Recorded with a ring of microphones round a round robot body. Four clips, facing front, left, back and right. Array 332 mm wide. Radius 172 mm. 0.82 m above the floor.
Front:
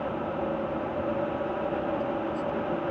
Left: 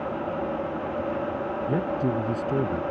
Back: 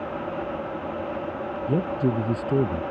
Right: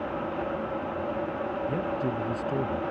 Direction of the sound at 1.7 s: 155° left.